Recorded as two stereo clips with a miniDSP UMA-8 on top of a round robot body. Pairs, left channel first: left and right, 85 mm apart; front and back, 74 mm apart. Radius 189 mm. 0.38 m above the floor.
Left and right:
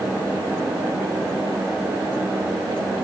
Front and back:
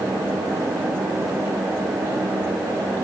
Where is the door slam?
No door slam in this recording.